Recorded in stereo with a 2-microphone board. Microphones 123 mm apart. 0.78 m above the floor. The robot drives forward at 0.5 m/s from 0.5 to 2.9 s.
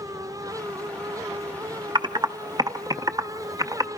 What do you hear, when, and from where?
1.9 s typing on a keyboard: 35° right (ahead or behind), 0.7 m; by 3.9 s 30° right (ahead or behind), 0.8 m